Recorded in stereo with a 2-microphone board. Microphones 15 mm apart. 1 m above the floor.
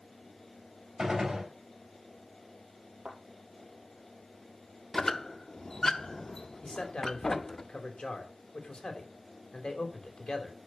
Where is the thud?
60° right (ahead or behind), 4.5 m.